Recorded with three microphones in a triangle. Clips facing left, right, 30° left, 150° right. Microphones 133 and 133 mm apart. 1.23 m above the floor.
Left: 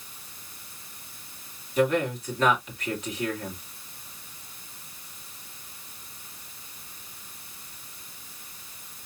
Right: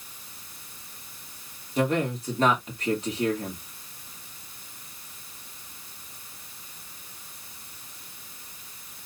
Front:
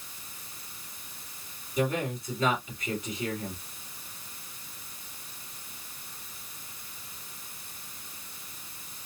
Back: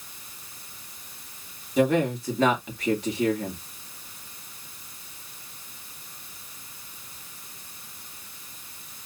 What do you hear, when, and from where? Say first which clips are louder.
1.8 s a man speaking: left 1 dB, back 7 dB; 145° right, 2 m